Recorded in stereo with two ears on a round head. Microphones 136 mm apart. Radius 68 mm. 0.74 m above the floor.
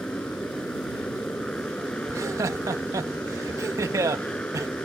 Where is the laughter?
20° right (ahead or behind).